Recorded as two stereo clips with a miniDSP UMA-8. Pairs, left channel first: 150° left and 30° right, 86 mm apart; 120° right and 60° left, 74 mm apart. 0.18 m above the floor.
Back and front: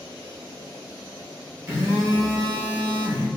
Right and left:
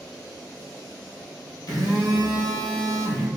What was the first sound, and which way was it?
A phone buzzing, 90° right.